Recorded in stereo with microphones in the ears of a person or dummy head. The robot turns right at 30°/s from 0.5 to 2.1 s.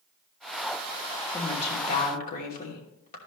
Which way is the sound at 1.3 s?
30° left (ahead or behind).